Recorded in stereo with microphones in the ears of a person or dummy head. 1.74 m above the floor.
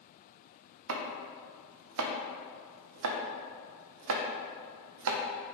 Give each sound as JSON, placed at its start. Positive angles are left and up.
{"t": 0.9, "sound": "chopping", "side_deg": -75, "distance_m": 0.7}